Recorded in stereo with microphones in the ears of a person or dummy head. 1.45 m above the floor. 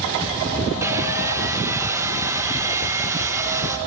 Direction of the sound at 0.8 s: 20° right (ahead or behind).